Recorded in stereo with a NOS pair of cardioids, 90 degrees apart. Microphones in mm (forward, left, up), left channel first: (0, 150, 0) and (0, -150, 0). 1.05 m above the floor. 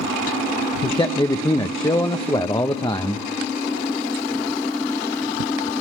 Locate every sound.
0.8 s a man speaking: 15° left, 0.6 m